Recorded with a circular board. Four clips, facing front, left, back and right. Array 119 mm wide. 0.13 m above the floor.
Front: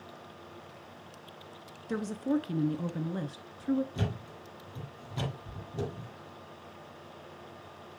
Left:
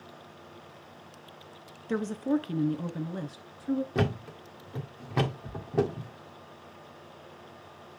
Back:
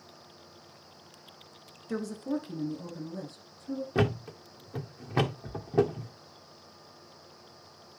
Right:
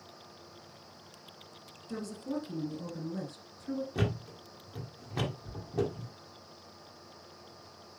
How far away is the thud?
About 1.7 m.